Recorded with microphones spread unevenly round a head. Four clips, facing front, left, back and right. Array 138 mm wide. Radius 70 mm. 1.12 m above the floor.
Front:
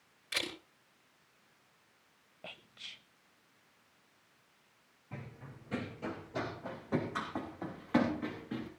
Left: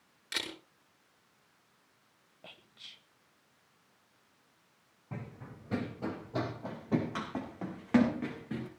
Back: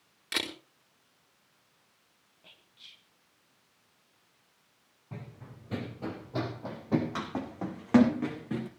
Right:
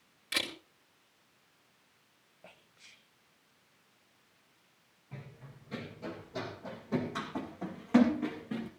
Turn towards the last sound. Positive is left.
turn(degrees=175)